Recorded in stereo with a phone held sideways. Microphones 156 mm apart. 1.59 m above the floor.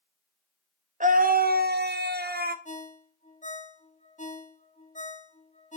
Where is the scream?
50° right (ahead or behind), 1.0 m; by 2.5 s 65° right (ahead or behind), 1.1 m.